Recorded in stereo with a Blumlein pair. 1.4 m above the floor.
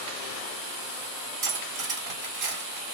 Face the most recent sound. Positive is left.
turn(degrees=-30)